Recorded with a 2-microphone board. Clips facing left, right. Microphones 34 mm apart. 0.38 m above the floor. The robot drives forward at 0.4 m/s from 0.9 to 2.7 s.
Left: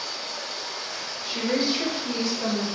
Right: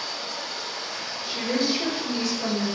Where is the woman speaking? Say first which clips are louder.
Left 1 dB; 25° left (ahead or behind), 0.8 m; by 2.7 s 20° left (ahead or behind), 1.1 m.